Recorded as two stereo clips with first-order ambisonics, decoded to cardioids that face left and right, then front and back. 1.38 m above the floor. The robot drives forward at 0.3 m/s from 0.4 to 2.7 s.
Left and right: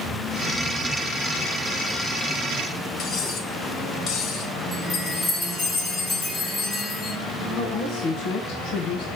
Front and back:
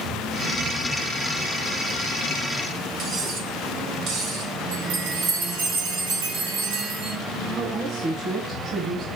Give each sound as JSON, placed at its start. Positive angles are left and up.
{"t": 3.0, "sound": "cutlery clinking", "azimuth_deg": 140, "distance_m": 1.1}
{"t": 4.7, "sound": "a chime", "azimuth_deg": 175, "distance_m": 1.2}
{"t": 7.6, "sound": "a woman speaking", "azimuth_deg": 130, "distance_m": 1.9}